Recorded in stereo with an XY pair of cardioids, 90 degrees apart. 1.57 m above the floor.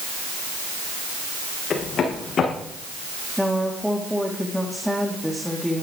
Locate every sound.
1.7 s running footsteps: 60° left, 6.5 m
3.4 s a woman speaking: 5° left, 3.5 m